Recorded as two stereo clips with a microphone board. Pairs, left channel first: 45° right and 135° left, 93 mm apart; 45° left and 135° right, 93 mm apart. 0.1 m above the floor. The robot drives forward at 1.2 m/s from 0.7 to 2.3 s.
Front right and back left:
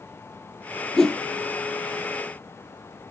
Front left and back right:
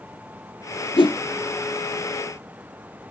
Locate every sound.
1.0 s a whoosh: 35° left, 0.8 m; by 1.2 s 55° left, 0.6 m